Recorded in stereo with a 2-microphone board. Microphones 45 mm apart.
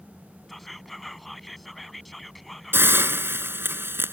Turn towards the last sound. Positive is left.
turn(degrees=-60)  # may be behind; listen again after turning